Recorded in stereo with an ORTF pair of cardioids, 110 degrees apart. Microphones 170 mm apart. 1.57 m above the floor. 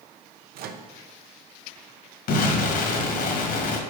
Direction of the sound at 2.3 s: 65° left.